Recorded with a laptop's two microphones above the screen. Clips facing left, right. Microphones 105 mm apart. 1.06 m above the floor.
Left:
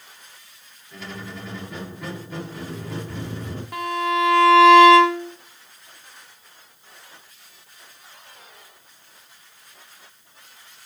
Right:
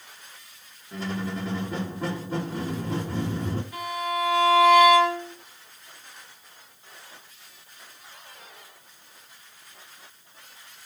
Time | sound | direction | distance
0.9 | a squeak | 35° right (ahead or behind) | 1.9 m
3.7 | a violin | 65° left (ahead or behind) | 1.2 m